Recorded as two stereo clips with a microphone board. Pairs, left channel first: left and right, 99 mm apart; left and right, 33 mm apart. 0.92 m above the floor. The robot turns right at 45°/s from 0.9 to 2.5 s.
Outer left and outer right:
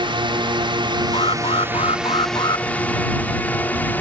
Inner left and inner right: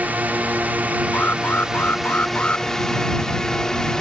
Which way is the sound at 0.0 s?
55° right (ahead or behind).